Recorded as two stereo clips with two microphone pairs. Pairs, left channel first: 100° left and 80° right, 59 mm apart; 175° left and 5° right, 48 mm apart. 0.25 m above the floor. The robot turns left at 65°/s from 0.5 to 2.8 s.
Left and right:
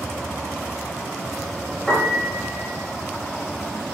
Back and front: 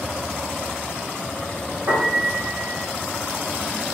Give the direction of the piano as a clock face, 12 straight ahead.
11 o'clock.